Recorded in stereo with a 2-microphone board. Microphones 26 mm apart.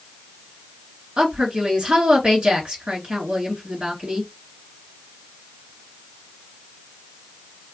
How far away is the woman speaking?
About 3 m.